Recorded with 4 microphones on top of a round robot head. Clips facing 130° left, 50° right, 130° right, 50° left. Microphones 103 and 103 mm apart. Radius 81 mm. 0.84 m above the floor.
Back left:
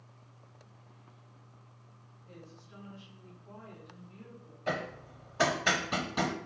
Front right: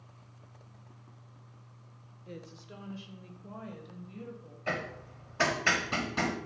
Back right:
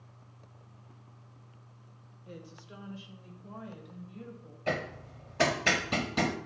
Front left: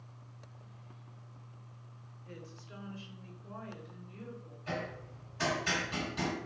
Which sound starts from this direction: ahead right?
A woman speaking, at 2.3 s.